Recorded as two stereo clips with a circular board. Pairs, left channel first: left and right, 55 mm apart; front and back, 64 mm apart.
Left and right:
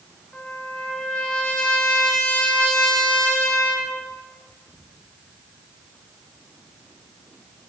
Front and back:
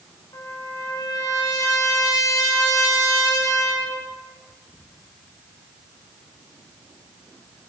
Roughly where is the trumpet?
Ahead.